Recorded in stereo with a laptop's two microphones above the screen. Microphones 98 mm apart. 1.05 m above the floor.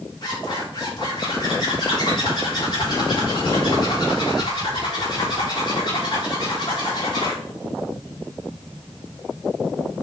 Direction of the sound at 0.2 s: 45° left (ahead or behind).